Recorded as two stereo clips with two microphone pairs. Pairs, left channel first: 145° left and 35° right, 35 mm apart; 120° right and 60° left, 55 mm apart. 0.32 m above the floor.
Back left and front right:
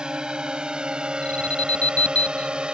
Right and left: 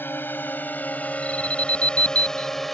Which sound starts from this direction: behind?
An alarm, at 1.2 s.